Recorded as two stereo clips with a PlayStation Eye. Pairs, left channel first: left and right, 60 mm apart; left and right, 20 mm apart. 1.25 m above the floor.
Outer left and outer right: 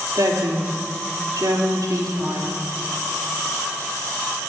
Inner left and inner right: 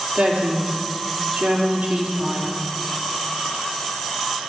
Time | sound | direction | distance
0.1 | a woman speaking | 80° right | 3 m